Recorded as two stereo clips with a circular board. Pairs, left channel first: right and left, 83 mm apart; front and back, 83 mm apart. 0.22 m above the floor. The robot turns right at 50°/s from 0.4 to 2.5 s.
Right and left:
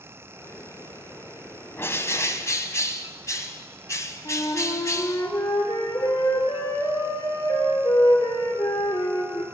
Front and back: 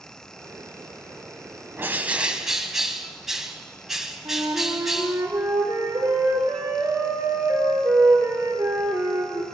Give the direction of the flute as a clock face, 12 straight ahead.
4 o'clock.